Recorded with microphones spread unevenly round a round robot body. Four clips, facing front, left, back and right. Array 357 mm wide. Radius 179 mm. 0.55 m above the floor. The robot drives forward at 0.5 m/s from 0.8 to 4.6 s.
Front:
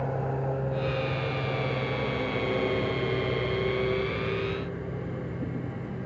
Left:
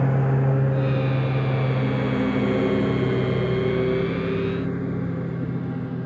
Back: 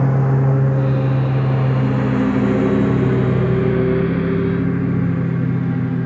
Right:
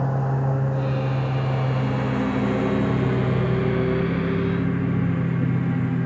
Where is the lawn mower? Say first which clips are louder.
Left 2 dB, back 11 dB; 170° left; by 6.1 s 155° right.